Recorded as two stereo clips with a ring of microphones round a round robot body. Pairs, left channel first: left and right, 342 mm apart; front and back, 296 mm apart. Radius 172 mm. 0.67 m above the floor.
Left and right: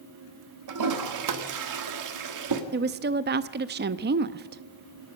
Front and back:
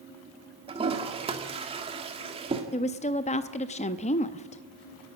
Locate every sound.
0.7 s a toilet flushing: 110° right, 1.7 m
2.7 s a woman speaking: 50° right, 0.6 m